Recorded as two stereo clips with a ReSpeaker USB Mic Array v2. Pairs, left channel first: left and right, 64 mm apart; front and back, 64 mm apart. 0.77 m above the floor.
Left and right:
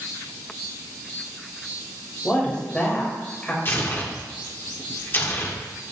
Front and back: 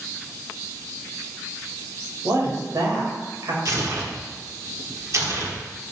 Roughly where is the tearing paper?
Behind left.